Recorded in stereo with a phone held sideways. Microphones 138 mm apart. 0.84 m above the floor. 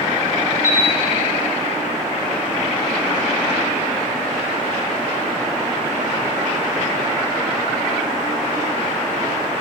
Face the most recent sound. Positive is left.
turn(degrees=-70)  # may be behind; listen again after turning